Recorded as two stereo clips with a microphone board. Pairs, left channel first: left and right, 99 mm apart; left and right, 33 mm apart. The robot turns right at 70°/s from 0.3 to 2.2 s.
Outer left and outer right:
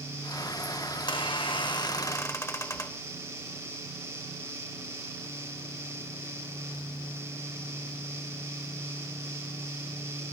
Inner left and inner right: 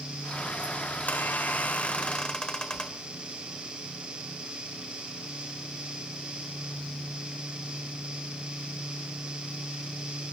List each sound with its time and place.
0.9 s a squeak: 60° left, 1.1 m; by 3.1 s 145° left, 1.1 m